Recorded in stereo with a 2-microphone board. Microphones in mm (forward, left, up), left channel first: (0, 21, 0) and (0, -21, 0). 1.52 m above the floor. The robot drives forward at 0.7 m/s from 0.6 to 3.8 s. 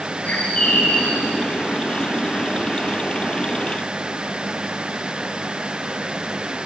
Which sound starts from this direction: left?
A bird, at 0.2 s.